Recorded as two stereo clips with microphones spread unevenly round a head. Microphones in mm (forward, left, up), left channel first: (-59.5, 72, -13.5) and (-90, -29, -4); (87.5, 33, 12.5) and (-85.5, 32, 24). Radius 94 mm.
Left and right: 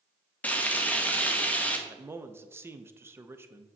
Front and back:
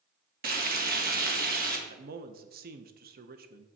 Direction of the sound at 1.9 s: 170° right.